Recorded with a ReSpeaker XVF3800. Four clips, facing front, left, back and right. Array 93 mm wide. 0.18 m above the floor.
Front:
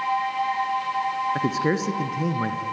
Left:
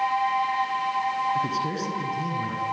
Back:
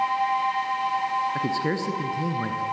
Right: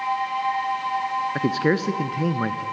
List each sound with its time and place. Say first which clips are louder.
1.4 s a man speaking: right 4 dB, front 2 dB; 75° right, 1.8 m